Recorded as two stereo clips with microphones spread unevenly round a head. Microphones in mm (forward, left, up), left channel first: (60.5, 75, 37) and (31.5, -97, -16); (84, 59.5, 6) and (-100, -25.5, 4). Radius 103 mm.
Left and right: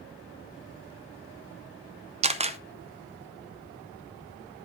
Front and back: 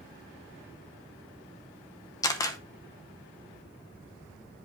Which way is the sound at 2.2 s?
50° right.